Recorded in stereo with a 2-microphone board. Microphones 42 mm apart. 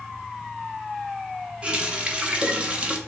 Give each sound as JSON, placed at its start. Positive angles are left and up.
{"t": 1.6, "sound": "a running tap", "side_deg": -30, "distance_m": 0.7}